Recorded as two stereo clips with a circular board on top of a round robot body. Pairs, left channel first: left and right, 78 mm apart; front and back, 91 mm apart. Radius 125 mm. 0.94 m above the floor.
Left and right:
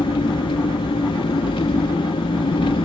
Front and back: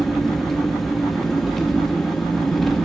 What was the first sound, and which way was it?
An engine running, 85° left.